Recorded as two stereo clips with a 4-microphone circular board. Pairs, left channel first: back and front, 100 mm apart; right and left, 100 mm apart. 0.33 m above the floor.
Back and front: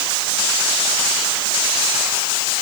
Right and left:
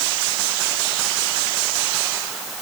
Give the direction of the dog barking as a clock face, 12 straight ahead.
I don't hear a dog barking.